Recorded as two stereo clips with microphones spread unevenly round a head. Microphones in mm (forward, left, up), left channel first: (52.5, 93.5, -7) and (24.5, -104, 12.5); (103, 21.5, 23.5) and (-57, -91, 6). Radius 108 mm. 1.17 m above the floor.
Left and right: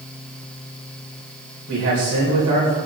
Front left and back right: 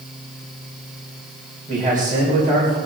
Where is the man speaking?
95° right, 4 m.